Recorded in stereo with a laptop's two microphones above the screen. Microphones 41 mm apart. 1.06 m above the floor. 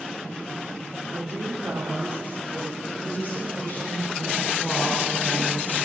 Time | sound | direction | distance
1.1 | a woman speaking | 85° right | 2.5 m
2.9 | a woman speaking | 60° left (ahead or behind) | 3 m